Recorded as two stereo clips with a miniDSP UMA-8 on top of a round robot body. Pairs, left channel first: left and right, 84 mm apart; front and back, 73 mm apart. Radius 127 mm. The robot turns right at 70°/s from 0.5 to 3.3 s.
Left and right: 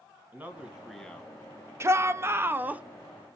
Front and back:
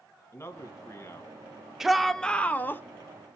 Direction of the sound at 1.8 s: 100° right.